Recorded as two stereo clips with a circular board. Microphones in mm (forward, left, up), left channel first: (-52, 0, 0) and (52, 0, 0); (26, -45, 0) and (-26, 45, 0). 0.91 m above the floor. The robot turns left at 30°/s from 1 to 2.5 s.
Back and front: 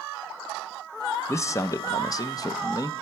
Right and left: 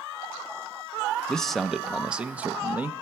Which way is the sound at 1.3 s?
140° right.